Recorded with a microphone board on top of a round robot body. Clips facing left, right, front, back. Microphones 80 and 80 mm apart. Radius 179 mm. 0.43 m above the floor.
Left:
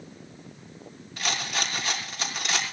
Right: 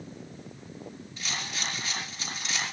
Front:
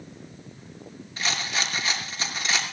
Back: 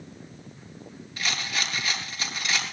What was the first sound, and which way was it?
A rattle, 60° left.